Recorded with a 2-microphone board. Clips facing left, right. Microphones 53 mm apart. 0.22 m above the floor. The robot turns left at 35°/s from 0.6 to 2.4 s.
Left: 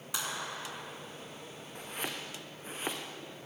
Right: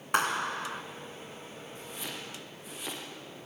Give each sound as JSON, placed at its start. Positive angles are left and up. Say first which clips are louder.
{"t": 0.1, "sound": "a clap", "louder": "right 10 dB", "side_deg": -55, "distance_m": 1.7}
{"t": 1.8, "sound": "chopping", "louder": "left 3 dB", "side_deg": 60, "distance_m": 4.0}